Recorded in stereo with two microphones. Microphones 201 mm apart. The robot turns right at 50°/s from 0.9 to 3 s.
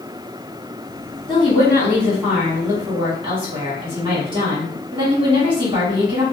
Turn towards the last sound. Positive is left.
turn(degrees=-135)